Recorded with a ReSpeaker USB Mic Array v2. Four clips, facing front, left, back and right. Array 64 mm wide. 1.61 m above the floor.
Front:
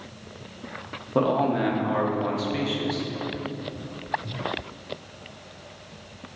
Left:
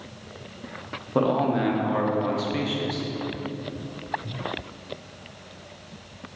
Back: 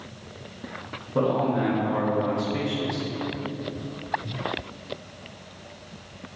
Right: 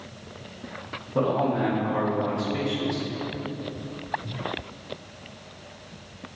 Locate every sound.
1.1 s a man speaking: 50° left, 0.6 m